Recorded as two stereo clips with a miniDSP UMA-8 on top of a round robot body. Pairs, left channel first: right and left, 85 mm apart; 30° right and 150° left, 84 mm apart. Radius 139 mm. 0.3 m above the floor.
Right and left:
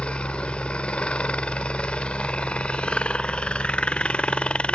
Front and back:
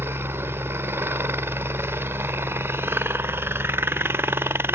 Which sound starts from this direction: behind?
A helicopter, at 0.0 s.